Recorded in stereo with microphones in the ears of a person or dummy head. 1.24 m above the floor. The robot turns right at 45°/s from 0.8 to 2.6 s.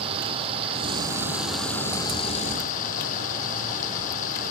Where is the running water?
30° right; by 4.5 s 50° left.